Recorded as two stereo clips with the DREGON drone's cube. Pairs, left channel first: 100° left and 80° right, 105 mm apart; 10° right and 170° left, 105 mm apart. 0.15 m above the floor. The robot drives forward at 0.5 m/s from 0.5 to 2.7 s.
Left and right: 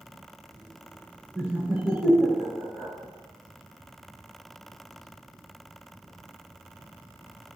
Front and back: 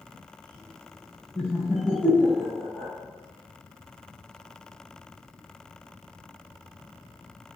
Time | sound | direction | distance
1.4 | laughter | 40° right | 1.5 m